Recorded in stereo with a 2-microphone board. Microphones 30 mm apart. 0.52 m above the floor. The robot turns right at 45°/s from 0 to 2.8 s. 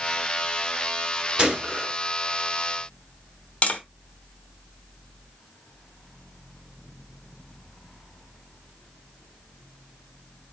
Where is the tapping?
40° left (ahead or behind), 0.9 m.